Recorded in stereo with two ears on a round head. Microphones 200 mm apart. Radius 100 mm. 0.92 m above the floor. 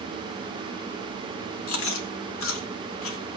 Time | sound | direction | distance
1.7 | chewing | 65° left (ahead or behind) | 2.5 m